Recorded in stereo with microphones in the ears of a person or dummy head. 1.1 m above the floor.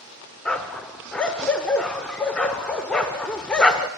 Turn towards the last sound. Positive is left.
turn(degrees=5)  # may be behind; listen again after turning